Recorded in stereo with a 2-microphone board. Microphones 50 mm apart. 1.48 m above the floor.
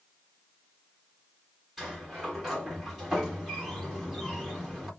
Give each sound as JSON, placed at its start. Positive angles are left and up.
{"t": 1.8, "sound": "a sliding door", "side_deg": -10, "distance_m": 1.6}